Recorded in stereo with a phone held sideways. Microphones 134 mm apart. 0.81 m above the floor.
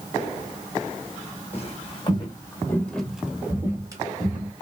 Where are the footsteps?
45° left (ahead or behind), 1.3 m; by 4.5 s 40° right (ahead or behind), 1.3 m.